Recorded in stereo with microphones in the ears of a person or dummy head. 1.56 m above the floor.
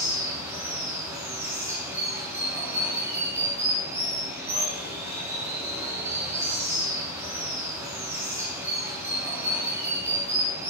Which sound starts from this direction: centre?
Running water, at 0.0 s.